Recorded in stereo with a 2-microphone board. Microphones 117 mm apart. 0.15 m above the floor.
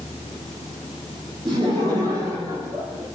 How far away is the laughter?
About 4.5 m.